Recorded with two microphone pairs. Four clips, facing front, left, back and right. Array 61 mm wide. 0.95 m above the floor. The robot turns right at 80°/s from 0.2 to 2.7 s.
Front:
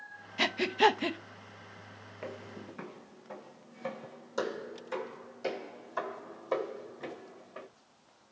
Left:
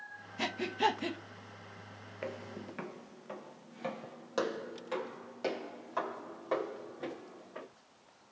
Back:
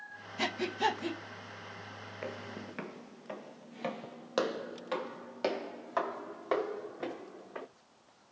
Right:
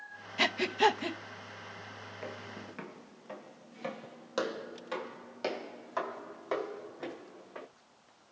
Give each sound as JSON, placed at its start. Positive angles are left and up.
{"t": 0.4, "sound": "breathing", "azimuth_deg": -60, "distance_m": 0.7}
{"t": 2.2, "sound": "footsteps", "azimuth_deg": 120, "distance_m": 0.9}